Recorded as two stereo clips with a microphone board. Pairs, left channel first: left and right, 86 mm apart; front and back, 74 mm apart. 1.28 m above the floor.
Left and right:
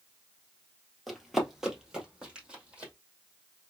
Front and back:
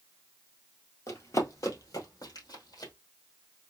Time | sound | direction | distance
1.1 | running footsteps | straight ahead | 1.5 m